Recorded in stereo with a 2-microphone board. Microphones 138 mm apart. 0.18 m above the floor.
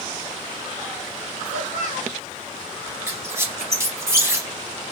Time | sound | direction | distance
1.4 | a child speaking | 60° left (ahead or behind) | 1.5 m
3.1 | a squeak | 20° right (ahead or behind) | 0.9 m